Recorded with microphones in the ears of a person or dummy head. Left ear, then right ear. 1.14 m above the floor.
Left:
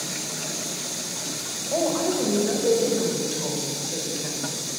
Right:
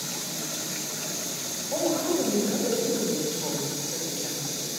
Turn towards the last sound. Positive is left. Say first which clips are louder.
# left 2 dB
turn(degrees=60)  # may be behind; listen again after turning